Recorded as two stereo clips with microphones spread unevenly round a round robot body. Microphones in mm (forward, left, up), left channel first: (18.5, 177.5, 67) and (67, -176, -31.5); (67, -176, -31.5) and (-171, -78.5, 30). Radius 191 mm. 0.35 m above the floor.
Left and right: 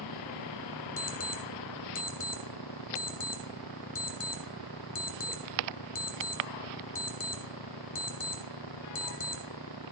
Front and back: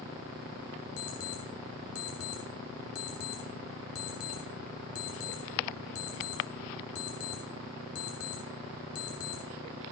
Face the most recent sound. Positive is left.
turn(degrees=30)